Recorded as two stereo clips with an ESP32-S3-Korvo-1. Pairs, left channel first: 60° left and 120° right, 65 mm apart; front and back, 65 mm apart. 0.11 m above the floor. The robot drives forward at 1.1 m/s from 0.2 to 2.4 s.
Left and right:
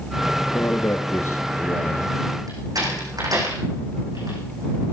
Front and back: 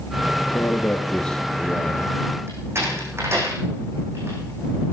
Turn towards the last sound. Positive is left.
turn(degrees=-135)